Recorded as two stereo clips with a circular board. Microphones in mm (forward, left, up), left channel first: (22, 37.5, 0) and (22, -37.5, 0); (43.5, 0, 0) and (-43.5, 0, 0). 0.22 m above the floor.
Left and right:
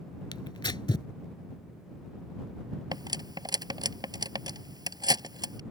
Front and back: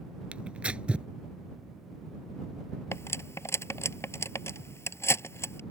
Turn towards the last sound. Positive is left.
turn(degrees=-60)